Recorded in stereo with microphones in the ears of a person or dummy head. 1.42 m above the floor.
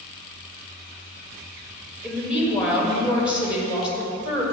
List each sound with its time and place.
2.0 s a woman speaking: 5° right (ahead or behind), 1.2 m